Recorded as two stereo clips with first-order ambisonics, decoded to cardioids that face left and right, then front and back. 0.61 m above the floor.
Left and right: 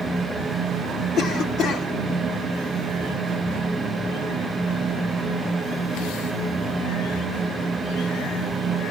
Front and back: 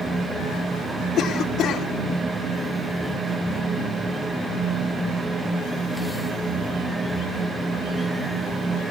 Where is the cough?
45° left, 1.7 m.